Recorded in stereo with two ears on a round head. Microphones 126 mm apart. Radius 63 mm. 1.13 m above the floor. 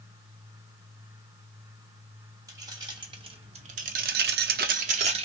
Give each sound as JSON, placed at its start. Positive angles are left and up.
{"t": 2.5, "sound": "keys jangling", "side_deg": -25, "distance_m": 1.5}